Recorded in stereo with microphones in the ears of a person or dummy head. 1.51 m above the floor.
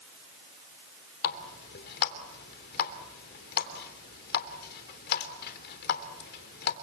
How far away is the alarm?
No alarm in this recording.